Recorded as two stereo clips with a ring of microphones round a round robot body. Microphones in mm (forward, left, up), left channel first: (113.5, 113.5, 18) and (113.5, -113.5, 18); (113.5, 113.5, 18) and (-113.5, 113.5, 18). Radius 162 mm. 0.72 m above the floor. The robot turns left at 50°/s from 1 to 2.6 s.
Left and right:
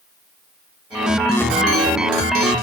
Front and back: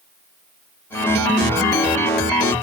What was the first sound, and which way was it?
Only background noise.